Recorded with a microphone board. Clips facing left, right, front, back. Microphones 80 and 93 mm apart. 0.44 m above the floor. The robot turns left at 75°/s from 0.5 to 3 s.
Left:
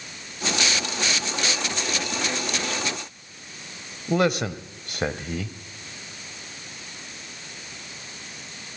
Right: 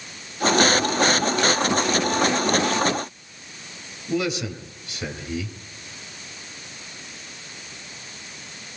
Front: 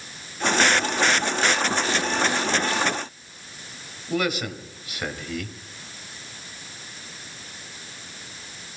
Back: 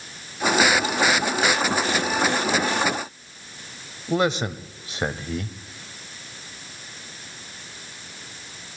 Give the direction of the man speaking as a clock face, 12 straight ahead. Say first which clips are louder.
Left 3 dB, back 3 dB; 8 o'clock.